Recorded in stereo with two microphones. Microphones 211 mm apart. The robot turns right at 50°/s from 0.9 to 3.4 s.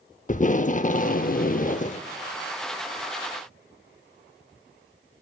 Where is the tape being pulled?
65° left, 0.6 m; by 2.0 s 125° left, 0.6 m.